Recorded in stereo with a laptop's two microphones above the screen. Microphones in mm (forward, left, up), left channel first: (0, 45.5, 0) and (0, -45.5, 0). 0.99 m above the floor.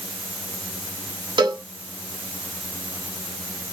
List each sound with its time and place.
1.4 s a cowbell: 55° right (ahead or behind), 1.1 m